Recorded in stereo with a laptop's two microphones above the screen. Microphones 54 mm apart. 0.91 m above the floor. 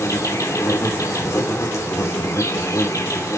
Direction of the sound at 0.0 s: 75° left (ahead or behind).